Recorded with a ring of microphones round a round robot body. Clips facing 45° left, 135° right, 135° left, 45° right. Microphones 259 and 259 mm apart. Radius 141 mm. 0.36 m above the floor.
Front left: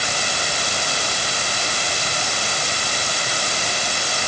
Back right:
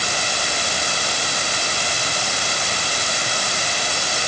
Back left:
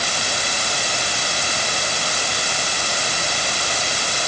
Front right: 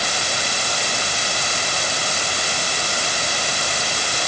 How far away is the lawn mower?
I don't hear a lawn mower.